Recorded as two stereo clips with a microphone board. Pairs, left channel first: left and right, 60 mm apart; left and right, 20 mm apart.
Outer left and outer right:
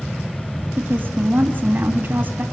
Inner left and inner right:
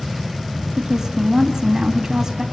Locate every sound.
0.8 s a woman speaking: 35° right (ahead or behind), 3 m